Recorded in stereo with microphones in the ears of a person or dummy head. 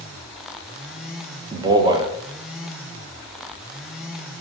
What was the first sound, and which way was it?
A man speaking, 25° right (ahead or behind).